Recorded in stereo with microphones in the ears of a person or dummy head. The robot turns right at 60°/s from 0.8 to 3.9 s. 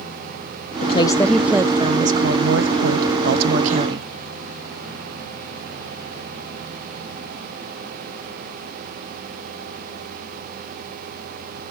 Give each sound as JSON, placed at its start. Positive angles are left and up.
{"t": 0.8, "sound": "a woman speaking", "azimuth_deg": 145, "distance_m": 0.8}